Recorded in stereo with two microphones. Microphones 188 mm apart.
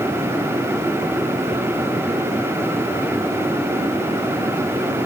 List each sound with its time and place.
Only background noise.